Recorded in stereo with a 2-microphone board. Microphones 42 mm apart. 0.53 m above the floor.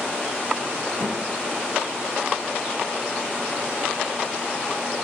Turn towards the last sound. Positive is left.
turn(degrees=-35)  # may be behind; listen again after turning